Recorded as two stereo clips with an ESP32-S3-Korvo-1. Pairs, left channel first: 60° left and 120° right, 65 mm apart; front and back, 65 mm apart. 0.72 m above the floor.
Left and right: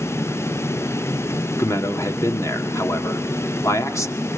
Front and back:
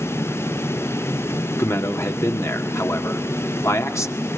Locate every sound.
1.6 s a man speaking: 30° left, 1.6 m